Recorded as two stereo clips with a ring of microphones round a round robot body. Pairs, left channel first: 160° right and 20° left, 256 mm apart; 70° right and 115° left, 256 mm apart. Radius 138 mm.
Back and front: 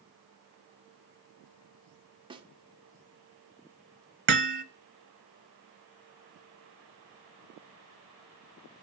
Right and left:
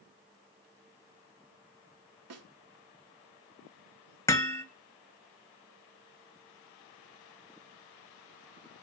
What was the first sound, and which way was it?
A snare drum, 95° left.